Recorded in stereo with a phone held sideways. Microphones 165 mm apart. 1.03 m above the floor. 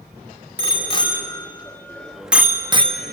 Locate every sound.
0.6 s a bicycle bell: 35° left (ahead or behind), 2.5 m; by 3.1 s 50° right (ahead or behind), 1.1 m